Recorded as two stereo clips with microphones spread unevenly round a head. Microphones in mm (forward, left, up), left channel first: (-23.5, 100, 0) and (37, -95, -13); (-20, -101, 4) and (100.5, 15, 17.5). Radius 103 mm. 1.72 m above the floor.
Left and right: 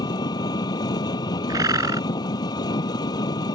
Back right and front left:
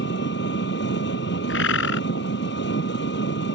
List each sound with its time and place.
0.0 s an engine running: straight behind
1.5 s a bird: 150° right